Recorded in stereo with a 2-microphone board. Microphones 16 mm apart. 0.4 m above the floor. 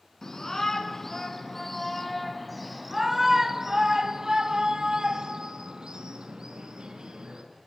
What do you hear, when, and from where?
0.2 s a shout: 35° left (ahead or behind), 4.5 m; by 7.4 s 75° right (ahead or behind), 5.5 m